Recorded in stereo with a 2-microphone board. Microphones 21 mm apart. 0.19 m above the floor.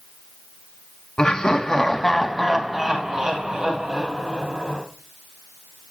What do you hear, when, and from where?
1.2 s laughter: 35° left (ahead or behind), 1.4 m; by 4.8 s 60° right (ahead or behind), 2 m